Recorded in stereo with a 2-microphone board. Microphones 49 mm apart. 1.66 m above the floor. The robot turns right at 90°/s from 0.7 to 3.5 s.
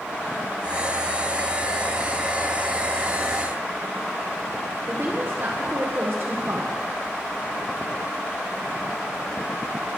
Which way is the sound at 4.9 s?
50° right (ahead or behind).